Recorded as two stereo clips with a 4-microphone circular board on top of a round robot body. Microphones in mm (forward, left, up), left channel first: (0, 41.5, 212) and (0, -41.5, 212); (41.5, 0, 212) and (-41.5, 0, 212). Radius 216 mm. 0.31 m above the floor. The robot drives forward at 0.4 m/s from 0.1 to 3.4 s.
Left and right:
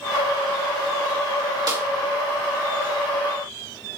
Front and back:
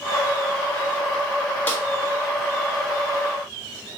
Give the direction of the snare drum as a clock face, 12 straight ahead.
2 o'clock.